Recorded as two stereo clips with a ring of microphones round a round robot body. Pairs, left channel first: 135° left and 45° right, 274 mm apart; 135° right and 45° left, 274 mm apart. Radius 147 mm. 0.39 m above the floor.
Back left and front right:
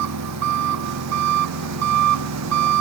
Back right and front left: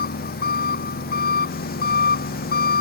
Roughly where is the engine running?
Right.